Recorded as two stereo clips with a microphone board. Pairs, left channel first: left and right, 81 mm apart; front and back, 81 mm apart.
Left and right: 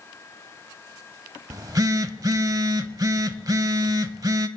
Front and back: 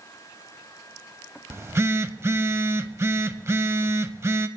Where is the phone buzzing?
125° right, 0.5 m.